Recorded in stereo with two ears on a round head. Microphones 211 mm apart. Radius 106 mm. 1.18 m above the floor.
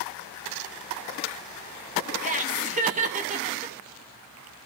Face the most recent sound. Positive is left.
turn(degrees=-35)  # may be behind; listen again after turning